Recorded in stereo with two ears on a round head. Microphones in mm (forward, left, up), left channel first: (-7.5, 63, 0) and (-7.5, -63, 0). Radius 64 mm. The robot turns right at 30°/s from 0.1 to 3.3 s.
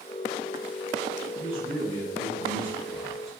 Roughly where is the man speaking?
Ahead right.